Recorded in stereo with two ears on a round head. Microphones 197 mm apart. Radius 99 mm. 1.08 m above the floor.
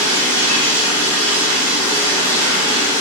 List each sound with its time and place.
0.0 s running water: 70° right (ahead or behind), 1.6 m